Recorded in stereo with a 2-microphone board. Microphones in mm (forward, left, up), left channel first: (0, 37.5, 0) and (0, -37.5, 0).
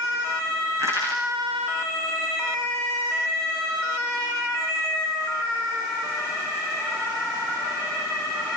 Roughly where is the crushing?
Right.